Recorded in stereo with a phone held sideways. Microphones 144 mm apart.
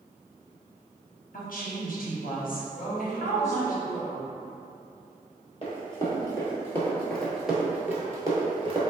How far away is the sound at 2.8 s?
About 1.3 m.